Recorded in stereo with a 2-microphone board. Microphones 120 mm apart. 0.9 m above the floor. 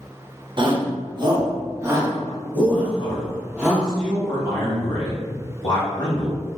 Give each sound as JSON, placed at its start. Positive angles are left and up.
{"t": 0.6, "sound": "a shout", "side_deg": -40, "distance_m": 0.8}
{"t": 3.0, "sound": "a man speaking", "side_deg": 35, "distance_m": 1.2}